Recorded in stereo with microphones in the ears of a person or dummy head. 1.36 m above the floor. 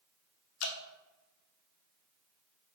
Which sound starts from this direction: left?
Dripping, at 0.6 s.